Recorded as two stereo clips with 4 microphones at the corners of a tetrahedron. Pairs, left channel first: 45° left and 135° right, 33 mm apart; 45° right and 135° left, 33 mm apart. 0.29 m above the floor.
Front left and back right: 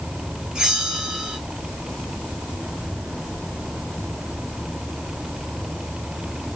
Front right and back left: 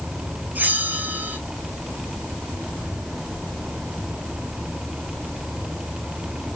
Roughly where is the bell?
Behind left.